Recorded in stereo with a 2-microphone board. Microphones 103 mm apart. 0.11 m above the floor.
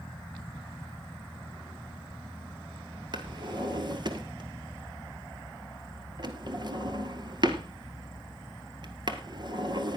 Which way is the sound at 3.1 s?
45° right (ahead or behind).